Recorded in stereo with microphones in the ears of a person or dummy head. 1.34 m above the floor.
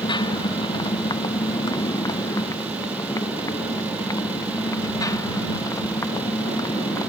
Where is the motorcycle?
20° left (ahead or behind); by 7.1 s 15° left (ahead or behind).